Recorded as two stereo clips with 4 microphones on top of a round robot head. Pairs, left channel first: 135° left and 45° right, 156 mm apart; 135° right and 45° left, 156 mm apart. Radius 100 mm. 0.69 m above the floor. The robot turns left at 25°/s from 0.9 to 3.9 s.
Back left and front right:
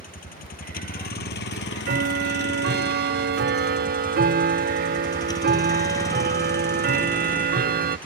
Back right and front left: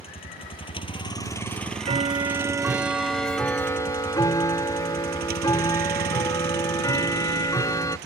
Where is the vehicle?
170° left; by 8.1 s 55° left.